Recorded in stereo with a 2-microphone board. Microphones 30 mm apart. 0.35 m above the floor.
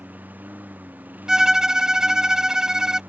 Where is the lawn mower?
75° right (ahead or behind); by 3.1 s 80° right.